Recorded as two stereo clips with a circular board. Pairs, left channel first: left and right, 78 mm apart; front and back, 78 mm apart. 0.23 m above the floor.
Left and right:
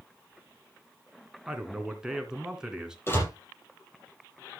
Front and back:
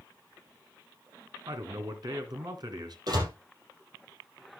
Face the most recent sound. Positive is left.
turn(degrees=150)